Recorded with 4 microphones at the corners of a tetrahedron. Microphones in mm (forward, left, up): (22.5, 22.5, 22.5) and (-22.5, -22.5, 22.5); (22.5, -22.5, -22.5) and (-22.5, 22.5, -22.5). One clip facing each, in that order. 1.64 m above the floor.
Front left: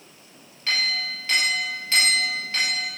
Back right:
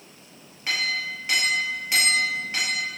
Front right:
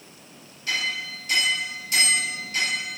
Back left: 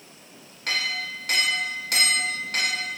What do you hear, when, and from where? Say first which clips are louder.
0.7 s a clink: even, even; 150° left, 4 m